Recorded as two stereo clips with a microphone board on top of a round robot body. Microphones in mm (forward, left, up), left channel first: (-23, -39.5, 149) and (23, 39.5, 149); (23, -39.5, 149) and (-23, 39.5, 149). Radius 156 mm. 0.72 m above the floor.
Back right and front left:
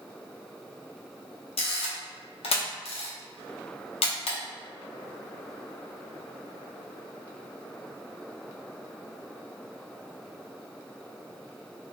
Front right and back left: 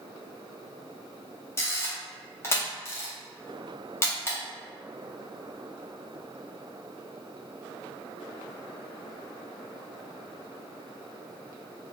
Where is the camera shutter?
125° right, 0.7 m.